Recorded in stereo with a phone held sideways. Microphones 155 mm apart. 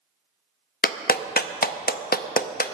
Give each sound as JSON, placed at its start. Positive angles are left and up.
{"t": 0.8, "sound": "a clap", "side_deg": 75, "distance_m": 0.6}